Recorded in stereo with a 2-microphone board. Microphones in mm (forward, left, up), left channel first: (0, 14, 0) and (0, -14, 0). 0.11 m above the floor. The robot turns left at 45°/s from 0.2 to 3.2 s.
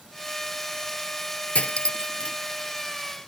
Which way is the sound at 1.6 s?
55° left (ahead or behind).